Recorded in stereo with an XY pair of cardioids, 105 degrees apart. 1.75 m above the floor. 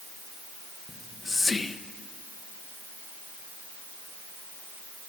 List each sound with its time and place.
0.9 s whispering: 20° left, 0.8 m